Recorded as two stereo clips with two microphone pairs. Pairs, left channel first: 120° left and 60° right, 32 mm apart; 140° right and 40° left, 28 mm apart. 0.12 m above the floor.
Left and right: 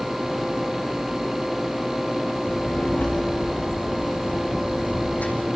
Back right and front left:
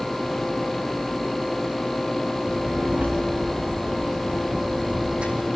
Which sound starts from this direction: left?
A child speaking, at 2.5 s.